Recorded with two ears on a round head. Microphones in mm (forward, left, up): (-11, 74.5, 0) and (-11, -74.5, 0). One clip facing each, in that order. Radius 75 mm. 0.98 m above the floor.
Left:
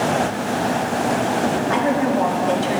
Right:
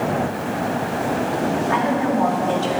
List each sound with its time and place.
1.7 s a woman speaking: 45° left (ahead or behind), 1.8 m; by 2.8 s 15° left (ahead or behind), 2.0 m